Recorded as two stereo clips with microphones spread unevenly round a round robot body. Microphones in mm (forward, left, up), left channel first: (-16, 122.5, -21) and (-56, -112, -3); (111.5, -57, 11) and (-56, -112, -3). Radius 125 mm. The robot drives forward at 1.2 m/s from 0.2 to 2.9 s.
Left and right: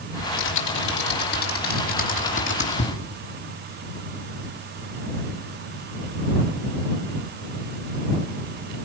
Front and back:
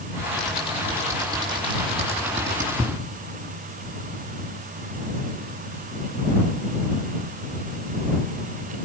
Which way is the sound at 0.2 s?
105° left.